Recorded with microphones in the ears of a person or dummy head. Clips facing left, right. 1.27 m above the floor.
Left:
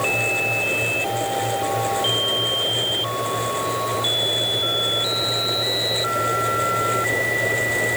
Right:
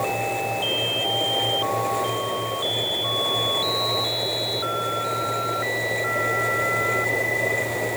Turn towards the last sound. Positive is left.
No sound to turn to.